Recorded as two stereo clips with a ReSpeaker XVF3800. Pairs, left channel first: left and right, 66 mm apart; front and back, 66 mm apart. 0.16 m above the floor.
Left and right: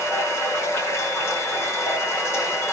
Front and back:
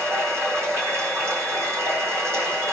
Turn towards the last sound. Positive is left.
turn(degrees=135)